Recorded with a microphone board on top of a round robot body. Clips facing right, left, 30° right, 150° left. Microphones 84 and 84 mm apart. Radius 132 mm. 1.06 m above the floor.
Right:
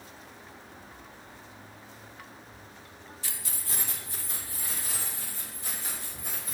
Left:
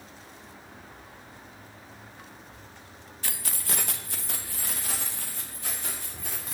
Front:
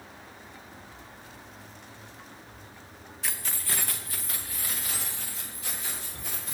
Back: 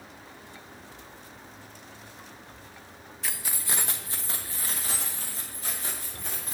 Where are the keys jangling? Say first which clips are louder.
Left 7 dB, even; 60° left, 0.6 m; by 6.5 s 105° left, 3 m.